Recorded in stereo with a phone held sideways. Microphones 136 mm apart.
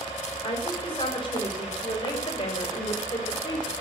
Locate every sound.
0.4 s a woman speaking: 40° left (ahead or behind), 5 m; by 3.7 s 35° left (ahead or behind), 3 m